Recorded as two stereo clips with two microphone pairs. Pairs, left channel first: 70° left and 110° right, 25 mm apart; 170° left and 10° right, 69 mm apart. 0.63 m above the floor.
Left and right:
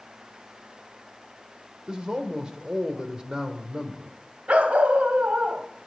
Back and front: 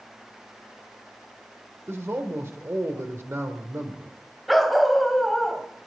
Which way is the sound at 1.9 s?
55° right.